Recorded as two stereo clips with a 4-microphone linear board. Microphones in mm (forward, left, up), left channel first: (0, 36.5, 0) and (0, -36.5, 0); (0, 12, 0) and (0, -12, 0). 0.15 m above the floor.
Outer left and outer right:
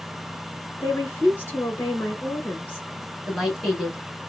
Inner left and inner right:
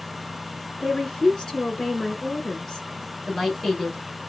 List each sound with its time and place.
0.8 s a woman speaking: 30° left (ahead or behind), 1.5 m
3.3 s a woman speaking: 5° right (ahead or behind), 1.7 m